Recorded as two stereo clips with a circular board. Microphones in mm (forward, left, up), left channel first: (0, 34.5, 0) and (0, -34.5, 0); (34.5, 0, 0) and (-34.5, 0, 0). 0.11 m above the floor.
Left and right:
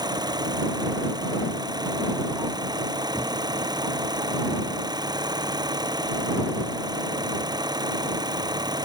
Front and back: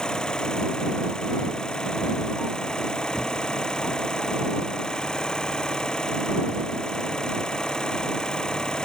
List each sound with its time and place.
0.0 s an engine running: 80° right